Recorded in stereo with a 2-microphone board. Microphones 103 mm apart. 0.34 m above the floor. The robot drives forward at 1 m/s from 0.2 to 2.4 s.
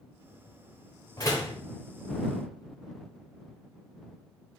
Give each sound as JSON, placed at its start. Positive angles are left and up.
{"t": 1.2, "sound": "a door slam", "side_deg": 35, "distance_m": 0.9}